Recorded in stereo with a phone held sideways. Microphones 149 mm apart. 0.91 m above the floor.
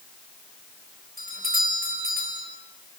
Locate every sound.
1.2 s a doorbell: 80° right, 5 m